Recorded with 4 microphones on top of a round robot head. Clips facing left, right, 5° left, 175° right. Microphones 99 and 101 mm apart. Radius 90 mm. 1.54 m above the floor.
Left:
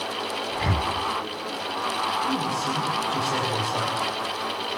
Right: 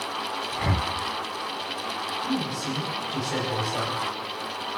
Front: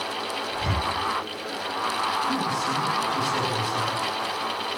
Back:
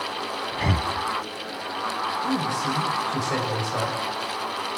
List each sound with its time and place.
0.5 s breathing: straight behind, 1.9 m
2.2 s a man speaking: 170° left, 9.5 m